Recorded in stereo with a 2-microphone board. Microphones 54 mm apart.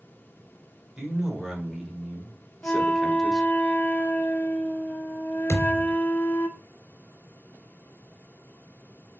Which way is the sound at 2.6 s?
35° left (ahead or behind).